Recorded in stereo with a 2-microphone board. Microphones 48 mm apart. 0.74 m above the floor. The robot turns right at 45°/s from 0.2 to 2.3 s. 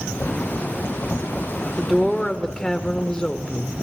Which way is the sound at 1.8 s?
10° right (ahead or behind).